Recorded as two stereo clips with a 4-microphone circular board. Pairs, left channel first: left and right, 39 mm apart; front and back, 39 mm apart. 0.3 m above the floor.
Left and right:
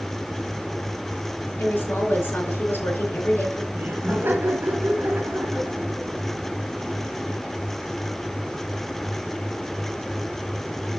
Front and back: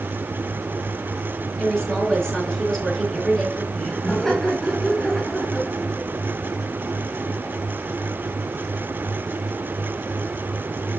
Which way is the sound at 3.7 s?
70° right.